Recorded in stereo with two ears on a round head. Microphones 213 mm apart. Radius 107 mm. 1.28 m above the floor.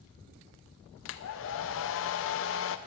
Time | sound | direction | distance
1.1 | a hair dryer | 55° left (ahead or behind) | 0.6 m